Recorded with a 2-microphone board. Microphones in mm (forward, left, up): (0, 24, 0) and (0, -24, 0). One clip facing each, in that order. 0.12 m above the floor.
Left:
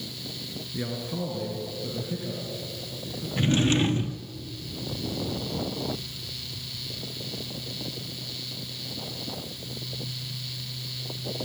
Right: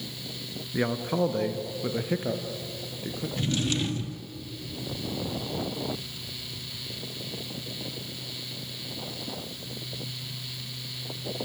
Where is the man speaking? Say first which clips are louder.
Right 6 dB; 45° right (ahead or behind), 1.8 m; by 3.3 s 60° right (ahead or behind), 3.5 m.